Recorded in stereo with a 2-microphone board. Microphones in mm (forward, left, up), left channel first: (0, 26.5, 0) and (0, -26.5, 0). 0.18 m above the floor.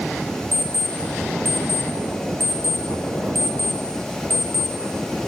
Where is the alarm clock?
45° left (ahead or behind), 2.5 m.